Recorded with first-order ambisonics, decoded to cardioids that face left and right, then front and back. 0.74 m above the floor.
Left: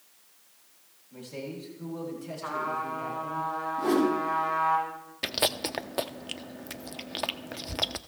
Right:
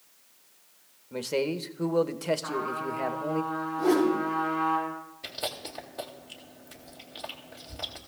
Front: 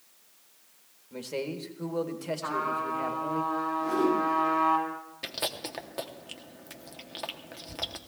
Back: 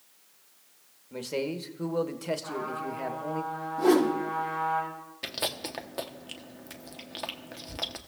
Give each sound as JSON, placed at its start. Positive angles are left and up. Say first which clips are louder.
{"t": 1.1, "sound": "a man speaking", "louder": "right 10 dB, back 2 dB", "azimuth_deg": -105, "distance_m": 0.8}
{"t": 2.4, "sound": "a trumpet", "louder": "even, front 4 dB", "azimuth_deg": 35, "distance_m": 6.0}
{"t": 3.8, "sound": "a whoosh", "louder": "right 2 dB, back 5 dB", "azimuth_deg": 170, "distance_m": 4.0}
{"t": 5.2, "sound": "chewing", "louder": "left 8 dB, back 1 dB", "azimuth_deg": 95, "distance_m": 0.7}